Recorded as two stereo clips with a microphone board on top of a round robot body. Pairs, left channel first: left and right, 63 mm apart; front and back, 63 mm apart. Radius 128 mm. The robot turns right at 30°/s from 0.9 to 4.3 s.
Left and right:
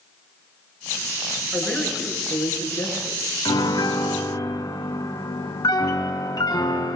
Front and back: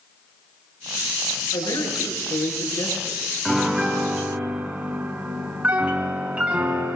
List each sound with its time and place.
1.5 s a man speaking: 5° right, 9 m; by 3.2 s 45° left, 9 m
3.5 s a piano: 85° left, 2.5 m; by 7.0 s 110° left, 2.5 m